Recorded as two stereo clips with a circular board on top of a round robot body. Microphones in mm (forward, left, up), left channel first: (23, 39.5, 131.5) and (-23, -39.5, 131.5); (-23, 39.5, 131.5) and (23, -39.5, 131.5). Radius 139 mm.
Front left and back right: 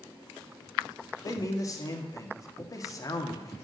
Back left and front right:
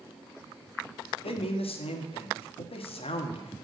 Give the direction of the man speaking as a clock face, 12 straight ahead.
8 o'clock.